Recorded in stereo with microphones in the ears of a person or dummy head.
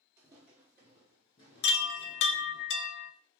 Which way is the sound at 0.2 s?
10° right (ahead or behind).